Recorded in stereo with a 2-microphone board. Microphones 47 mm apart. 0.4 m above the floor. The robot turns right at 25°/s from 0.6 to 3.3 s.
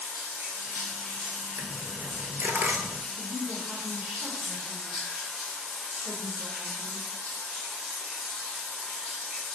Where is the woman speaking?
25° right (ahead or behind), 1.3 m.